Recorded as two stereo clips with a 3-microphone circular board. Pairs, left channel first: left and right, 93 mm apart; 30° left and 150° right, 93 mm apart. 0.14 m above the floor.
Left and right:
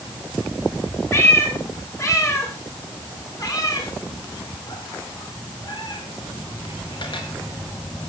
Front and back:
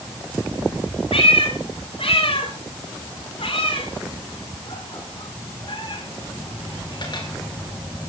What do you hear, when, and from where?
1.1 s a cat meowing: 25° left, 7.5 m; by 7.3 s 65° left, 6.5 m